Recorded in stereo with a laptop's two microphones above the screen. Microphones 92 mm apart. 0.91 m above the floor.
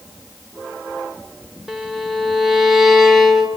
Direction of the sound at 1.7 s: 5° right (ahead or behind).